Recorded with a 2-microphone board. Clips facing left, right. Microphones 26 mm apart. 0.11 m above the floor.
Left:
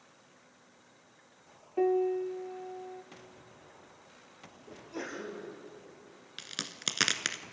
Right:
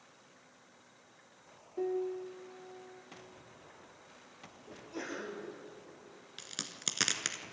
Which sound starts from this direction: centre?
A sneeze, at 4.7 s.